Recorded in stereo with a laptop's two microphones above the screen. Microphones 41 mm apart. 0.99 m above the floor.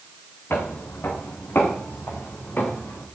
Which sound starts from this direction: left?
Footsteps, at 0.5 s.